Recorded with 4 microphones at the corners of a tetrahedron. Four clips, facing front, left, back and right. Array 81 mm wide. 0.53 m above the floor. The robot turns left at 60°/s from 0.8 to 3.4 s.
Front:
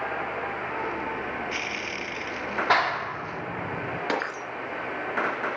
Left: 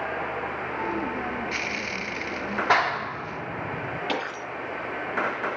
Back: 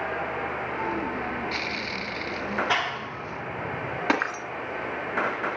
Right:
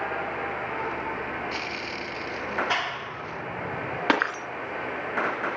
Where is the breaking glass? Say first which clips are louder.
Right 9 dB, back 5 dB; 110° right, 2.5 m.